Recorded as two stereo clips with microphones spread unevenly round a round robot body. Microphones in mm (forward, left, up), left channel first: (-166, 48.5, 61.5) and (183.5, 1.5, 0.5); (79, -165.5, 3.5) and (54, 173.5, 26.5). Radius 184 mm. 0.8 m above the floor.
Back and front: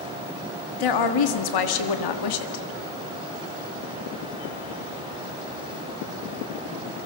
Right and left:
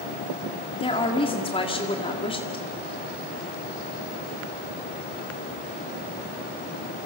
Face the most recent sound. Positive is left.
turn(degrees=-160)